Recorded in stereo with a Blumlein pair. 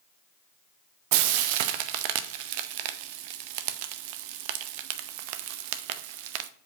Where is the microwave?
I don't hear a microwave.